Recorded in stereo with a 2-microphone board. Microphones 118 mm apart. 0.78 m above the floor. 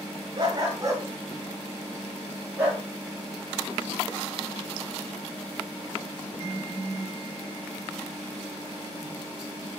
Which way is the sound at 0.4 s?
35° right (ahead or behind).